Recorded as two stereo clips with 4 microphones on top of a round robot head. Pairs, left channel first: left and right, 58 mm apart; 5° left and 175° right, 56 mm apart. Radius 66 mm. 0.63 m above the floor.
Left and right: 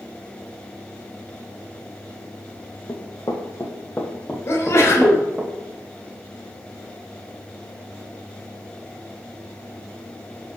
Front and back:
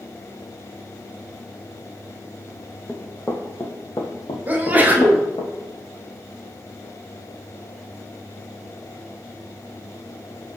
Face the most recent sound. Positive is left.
turn(degrees=130)